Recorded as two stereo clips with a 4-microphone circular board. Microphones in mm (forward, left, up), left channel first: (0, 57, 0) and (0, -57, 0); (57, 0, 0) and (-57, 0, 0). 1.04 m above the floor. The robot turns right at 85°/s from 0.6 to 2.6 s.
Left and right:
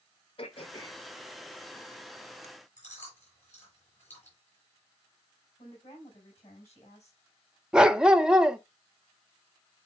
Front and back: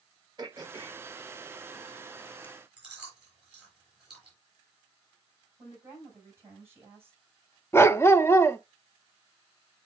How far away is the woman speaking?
About 6 m.